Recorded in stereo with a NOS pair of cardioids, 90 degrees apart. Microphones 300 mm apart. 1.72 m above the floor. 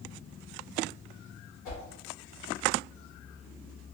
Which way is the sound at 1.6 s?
70° left.